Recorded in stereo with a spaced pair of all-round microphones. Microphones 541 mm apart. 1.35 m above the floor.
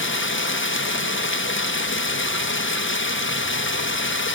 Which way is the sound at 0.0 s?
20° left (ahead or behind).